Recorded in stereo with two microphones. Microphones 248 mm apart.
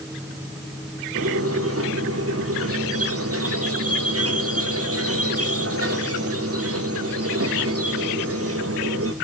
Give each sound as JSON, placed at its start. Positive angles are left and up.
{"t": 1.1, "sound": "a squeak", "side_deg": -70, "distance_m": 2.5}